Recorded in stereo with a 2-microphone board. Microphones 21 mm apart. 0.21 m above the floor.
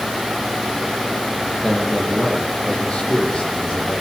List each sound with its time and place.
1.6 s a man speaking: 45° left (ahead or behind), 9 m